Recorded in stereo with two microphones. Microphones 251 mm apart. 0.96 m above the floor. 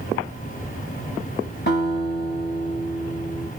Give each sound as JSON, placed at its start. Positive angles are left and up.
{"t": 1.7, "sound": "a guitar", "side_deg": 45, "distance_m": 5.0}